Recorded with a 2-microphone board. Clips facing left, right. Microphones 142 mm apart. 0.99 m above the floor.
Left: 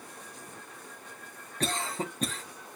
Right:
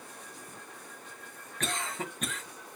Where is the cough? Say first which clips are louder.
Left 3 dB; 35° left (ahead or behind), 0.9 m.